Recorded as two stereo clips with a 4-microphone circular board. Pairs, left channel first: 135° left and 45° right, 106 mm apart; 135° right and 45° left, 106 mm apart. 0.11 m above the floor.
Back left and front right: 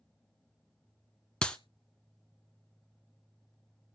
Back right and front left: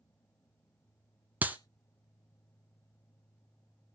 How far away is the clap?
About 1.0 m.